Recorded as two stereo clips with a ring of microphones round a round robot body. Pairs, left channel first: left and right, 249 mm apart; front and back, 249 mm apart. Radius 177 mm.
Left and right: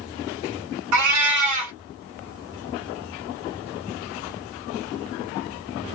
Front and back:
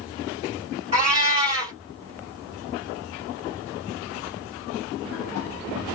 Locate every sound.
0.9 s a cat meowing: 110° right, 1.0 m